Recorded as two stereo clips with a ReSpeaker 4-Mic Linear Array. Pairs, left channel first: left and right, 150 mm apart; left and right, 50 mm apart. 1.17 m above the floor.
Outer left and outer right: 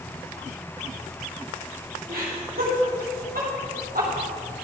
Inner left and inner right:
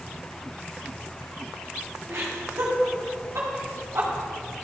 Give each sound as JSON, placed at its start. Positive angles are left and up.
{"t": 2.1, "sound": "laughter", "side_deg": -70, "distance_m": 2.0}